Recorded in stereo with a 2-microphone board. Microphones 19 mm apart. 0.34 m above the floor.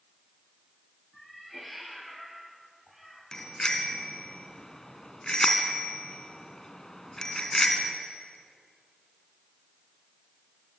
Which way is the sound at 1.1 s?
Centre (ahead or behind).